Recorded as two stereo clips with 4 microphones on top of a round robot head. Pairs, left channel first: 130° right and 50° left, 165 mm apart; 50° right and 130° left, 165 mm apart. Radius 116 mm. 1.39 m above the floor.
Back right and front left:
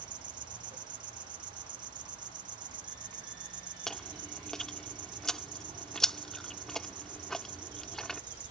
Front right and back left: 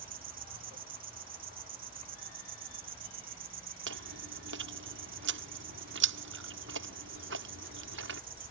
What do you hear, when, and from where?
0.0 s an insect: 110° left
3.9 s chewing: 140° left